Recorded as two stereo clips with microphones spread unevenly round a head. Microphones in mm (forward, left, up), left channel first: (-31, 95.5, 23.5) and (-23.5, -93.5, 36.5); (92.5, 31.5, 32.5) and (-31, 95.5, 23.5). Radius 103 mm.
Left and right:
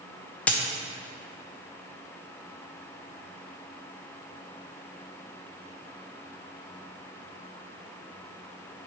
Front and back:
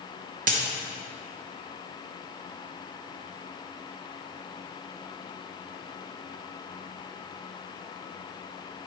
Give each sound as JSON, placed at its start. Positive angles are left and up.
{"t": 0.5, "sound": "a dropped coin", "azimuth_deg": 175, "distance_m": 0.6}